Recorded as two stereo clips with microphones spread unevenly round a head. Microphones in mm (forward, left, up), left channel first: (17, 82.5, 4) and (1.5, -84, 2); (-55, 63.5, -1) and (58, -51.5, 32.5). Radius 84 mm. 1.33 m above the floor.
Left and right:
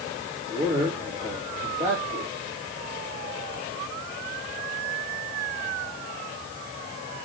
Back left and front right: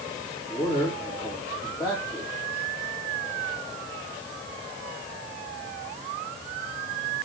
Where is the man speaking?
150° right, 3.5 m.